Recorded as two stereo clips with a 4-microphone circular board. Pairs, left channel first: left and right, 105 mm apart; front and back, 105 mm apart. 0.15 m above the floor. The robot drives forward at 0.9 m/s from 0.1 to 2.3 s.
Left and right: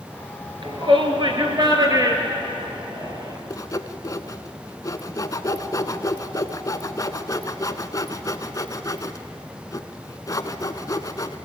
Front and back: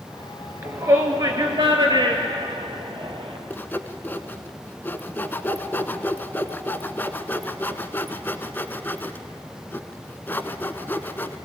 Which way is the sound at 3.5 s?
60° left.